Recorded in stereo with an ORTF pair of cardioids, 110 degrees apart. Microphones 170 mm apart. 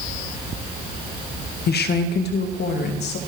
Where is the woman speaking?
70° left, 1.7 m; by 3.2 s 80° left, 4 m.